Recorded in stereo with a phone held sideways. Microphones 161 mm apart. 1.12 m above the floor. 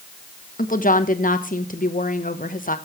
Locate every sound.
0.6 s a woman speaking: 55° left (ahead or behind), 1.2 m